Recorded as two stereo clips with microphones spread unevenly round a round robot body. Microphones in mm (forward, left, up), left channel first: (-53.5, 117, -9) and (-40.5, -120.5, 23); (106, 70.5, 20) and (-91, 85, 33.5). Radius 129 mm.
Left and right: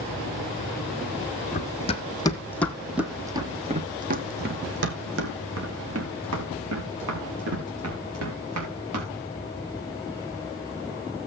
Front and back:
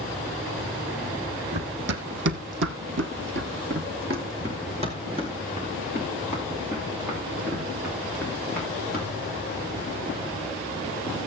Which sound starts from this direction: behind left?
Running footsteps, at 1.5 s.